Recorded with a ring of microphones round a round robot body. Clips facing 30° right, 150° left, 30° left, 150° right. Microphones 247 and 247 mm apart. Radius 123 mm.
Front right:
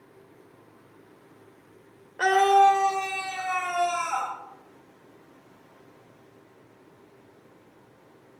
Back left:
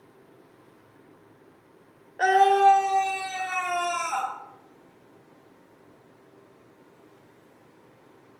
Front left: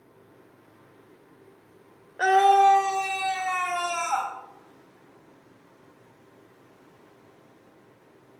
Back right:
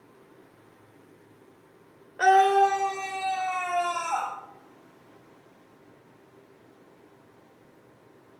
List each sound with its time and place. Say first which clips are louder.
2.2 s a scream: even, even; 75° right, 1.2 m; by 4.3 s 60° left, 2.5 m